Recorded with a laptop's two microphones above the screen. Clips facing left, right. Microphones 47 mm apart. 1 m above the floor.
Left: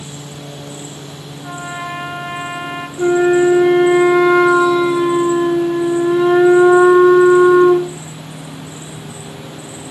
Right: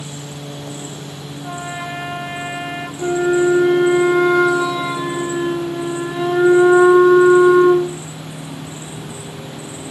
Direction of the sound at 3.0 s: 65° left (ahead or behind).